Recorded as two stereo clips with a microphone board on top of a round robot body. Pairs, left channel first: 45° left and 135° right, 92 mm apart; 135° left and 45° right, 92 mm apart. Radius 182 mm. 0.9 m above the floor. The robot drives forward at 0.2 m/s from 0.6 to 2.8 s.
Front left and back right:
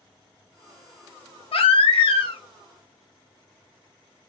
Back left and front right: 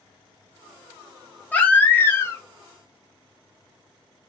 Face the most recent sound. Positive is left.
turn(degrees=80)